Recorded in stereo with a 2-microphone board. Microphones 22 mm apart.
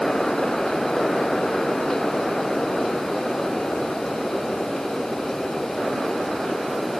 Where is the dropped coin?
No dropped coin in this recording.